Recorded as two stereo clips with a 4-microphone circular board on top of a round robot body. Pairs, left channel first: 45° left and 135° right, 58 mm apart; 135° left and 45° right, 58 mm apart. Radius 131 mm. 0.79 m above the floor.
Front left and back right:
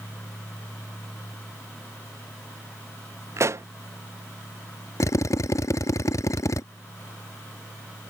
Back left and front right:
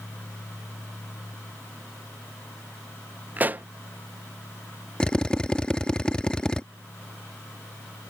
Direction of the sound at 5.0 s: 60° left.